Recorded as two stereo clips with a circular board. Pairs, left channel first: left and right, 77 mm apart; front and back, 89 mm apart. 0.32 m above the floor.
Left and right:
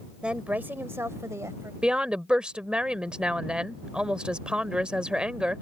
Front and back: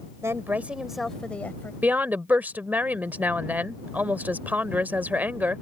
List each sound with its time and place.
0.2 s a woman speaking: 160° right; by 1.7 s 60° right
1.8 s a woman speaking: 145° right